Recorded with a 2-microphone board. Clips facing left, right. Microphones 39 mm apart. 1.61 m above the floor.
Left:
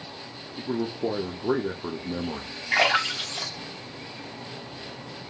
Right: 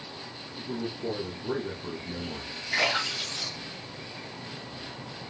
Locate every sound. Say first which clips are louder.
0.6 s a man speaking: left 6 dB; 40° left (ahead or behind), 0.6 m
2.7 s a splash: left 5 dB; 80° left, 2 m